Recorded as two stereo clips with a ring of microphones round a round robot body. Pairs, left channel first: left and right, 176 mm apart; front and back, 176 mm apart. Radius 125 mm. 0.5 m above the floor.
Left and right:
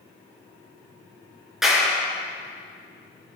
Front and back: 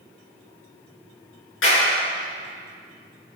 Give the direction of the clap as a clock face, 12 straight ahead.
12 o'clock.